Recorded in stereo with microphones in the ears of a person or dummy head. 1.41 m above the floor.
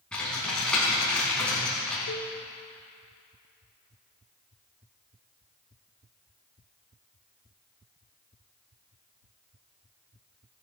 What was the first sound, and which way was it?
Typing on a keyboard, 5° left (ahead or behind).